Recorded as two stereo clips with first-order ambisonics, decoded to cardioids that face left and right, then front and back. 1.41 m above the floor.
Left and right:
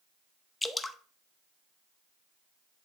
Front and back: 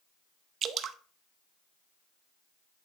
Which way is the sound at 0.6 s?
170° left.